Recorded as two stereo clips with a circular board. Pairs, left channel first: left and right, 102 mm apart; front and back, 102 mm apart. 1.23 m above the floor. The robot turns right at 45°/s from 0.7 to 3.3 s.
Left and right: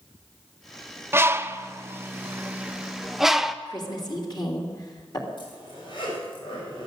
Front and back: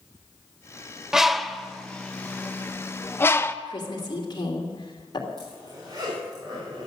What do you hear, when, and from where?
1.1 s a bird: 105° right, 0.5 m; by 3.5 s 5° right, 0.5 m
3.6 s a woman speaking: 45° left, 2.5 m
5.4 s a zipper: 130° left, 6 m